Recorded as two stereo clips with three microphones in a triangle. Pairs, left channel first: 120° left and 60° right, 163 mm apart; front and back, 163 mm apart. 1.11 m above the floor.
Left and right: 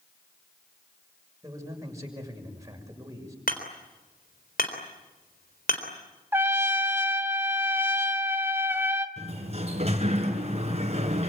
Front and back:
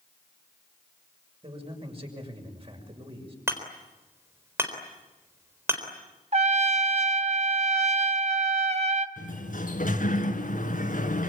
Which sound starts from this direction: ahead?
A sliding door, at 9.2 s.